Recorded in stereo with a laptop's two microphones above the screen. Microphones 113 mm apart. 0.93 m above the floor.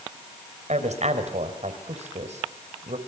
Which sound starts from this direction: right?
A woman speaking, at 0.7 s.